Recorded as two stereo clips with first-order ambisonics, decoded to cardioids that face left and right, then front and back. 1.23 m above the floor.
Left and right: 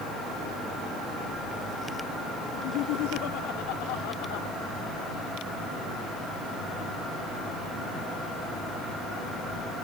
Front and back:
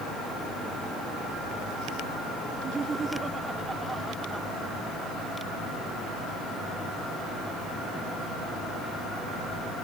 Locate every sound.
2.5 s laughter: 110° left; by 4.5 s 90° left